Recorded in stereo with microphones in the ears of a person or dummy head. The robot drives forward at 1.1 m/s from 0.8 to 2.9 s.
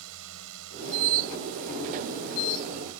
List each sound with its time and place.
0.0 s a drone: 65° right (ahead or behind); by 3.0 s 70° right (ahead or behind)